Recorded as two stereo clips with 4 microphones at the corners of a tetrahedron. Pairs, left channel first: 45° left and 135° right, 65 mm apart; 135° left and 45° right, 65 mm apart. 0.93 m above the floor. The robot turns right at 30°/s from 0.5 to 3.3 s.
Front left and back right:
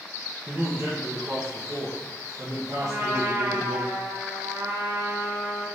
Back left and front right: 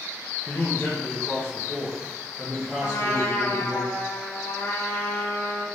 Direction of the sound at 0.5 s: 165° left.